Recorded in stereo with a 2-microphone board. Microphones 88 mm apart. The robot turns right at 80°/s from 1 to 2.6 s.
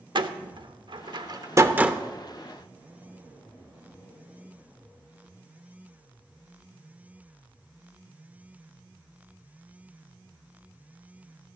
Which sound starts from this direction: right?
A door slam, at 0.1 s.